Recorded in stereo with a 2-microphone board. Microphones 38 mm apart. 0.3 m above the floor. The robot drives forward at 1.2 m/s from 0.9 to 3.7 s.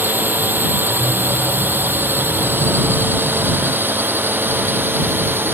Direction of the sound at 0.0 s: 60° right (ahead or behind).